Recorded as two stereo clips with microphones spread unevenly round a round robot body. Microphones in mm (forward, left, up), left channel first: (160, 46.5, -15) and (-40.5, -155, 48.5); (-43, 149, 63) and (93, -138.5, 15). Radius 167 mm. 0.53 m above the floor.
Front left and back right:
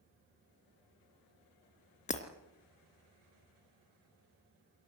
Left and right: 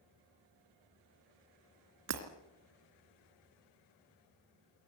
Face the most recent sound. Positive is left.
turn(degrees=-25)